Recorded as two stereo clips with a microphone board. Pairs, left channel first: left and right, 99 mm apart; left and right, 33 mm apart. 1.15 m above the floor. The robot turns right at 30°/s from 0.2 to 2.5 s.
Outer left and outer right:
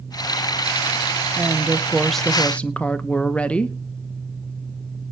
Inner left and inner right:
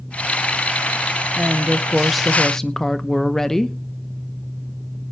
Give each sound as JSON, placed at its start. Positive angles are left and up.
{"t": 1.4, "sound": "a woman speaking", "azimuth_deg": -20, "distance_m": 0.9}